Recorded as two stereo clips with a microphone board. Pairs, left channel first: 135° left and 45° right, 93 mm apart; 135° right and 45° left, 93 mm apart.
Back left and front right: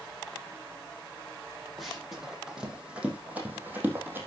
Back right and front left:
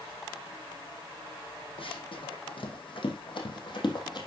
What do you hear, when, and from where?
1.8 s running footsteps: 135° right, 3.5 m; by 4.3 s 105° right, 2.5 m